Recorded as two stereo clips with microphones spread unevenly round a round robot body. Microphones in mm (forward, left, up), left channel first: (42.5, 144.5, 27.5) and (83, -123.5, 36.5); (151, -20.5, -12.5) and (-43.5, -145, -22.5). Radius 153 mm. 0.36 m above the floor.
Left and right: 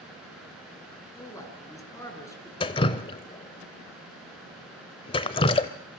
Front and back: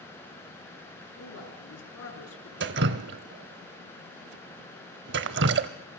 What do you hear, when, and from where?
1.2 s a man speaking: 20° left, 5.5 m
2.6 s dripping: 170° left, 0.6 m